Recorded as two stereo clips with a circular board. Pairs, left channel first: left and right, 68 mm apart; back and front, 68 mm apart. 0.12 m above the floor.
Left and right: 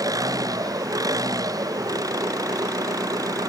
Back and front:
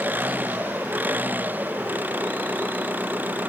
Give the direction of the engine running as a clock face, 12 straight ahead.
2 o'clock.